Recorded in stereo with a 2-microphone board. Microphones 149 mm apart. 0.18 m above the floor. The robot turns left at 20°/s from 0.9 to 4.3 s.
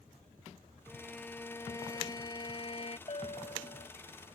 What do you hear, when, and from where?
0.9 s a violin: 175° left; by 3.0 s 135° left
3.1 s a bell: 40° left (ahead or behind); by 3.9 s 55° left (ahead or behind)